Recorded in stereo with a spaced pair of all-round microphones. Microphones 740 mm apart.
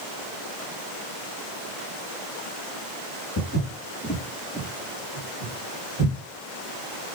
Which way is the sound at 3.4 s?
30° left (ahead or behind).